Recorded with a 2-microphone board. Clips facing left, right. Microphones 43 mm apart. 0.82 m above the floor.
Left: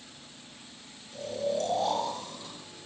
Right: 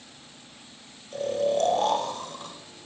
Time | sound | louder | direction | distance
1.1 | snoring | right 6 dB | 65° right (ahead or behind) | 3.5 m